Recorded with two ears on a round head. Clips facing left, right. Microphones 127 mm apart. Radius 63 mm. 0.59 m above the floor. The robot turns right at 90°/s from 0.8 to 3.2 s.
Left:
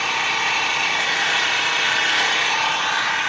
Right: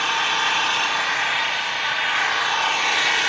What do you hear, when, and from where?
0.0 s an engine running: 10° left, 0.9 m; by 3.3 s 135° right, 0.9 m